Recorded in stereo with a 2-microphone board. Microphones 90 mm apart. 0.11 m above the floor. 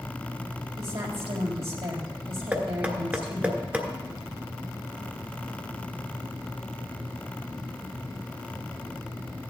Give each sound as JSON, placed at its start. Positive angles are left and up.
{"t": 0.8, "sound": "a woman speaking", "side_deg": -70, "distance_m": 3.5}
{"t": 2.5, "sound": "knocking", "side_deg": -15, "distance_m": 1.3}